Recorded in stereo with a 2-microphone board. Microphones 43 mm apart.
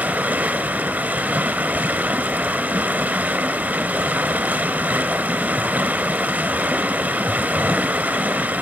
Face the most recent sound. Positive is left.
turn(degrees=-40)  # may be behind; listen again after turning